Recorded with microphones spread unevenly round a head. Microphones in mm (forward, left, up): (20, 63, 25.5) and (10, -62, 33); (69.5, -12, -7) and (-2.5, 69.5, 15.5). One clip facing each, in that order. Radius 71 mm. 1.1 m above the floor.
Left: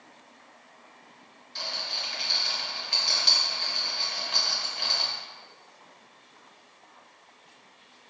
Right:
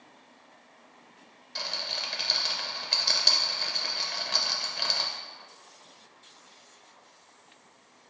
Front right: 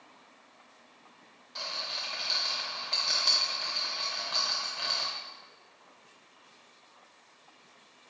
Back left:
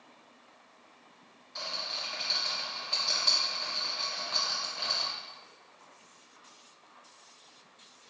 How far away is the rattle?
About 0.6 m.